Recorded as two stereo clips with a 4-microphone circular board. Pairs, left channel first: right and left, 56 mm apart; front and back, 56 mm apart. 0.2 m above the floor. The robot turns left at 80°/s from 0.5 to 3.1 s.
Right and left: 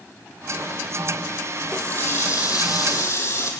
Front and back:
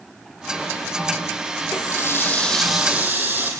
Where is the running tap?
10° right, 5.5 m; by 3.5 s 125° right, 5.5 m.